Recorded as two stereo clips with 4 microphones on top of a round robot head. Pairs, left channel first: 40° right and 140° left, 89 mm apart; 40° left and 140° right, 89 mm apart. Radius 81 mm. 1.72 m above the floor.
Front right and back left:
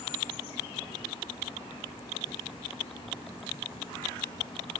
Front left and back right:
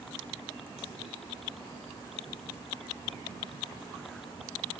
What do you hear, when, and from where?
Only background noise.